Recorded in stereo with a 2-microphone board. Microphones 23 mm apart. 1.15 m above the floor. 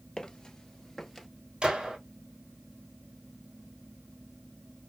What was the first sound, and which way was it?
Footsteps, 35° left (ahead or behind).